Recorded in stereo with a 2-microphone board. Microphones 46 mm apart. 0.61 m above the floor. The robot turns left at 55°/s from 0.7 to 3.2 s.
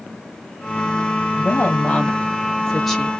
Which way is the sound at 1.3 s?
95° left.